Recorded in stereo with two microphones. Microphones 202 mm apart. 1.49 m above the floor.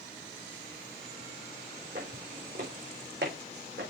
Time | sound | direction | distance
1.9 | footsteps | 60° right (ahead or behind) | 4.5 m